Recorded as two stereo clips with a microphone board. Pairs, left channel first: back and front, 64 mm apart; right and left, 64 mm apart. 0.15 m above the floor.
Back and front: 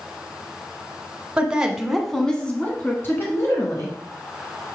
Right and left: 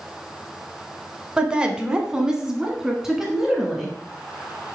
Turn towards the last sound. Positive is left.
turn(degrees=180)